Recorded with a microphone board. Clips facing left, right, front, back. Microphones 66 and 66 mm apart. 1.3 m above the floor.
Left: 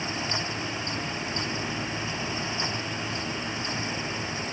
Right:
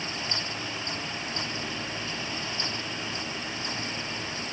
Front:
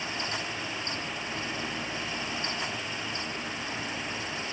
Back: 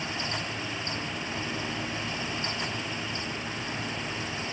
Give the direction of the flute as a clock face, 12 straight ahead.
No flute in this recording.